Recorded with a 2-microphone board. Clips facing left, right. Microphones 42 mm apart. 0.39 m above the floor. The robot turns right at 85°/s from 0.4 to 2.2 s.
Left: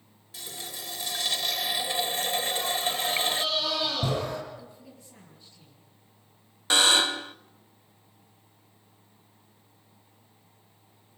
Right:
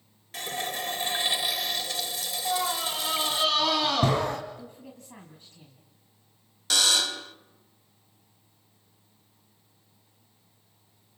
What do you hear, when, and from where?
0.3 s a running tap: 100° right, 0.8 m; by 3.5 s 55° left, 0.8 m
2.5 s a scream: 65° right (ahead or behind), 3 m
4.6 s a woman speaking: 55° right (ahead or behind), 3.5 m
6.7 s a buzzer: 30° left (ahead or behind), 0.7 m